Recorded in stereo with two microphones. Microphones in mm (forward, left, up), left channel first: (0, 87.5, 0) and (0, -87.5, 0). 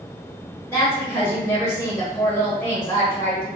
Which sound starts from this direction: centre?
A woman speaking, at 0.7 s.